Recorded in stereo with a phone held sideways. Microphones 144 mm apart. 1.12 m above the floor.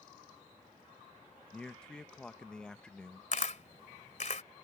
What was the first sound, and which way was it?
A man speaking, 5° left (ahead or behind).